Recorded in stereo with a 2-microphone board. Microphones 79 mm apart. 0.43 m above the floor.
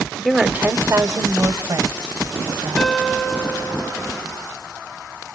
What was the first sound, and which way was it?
A woman speaking, 5° left (ahead or behind).